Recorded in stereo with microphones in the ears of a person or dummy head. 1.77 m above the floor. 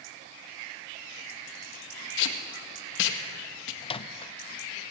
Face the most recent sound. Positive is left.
turn(degrees=35)  # may be behind; listen again after turning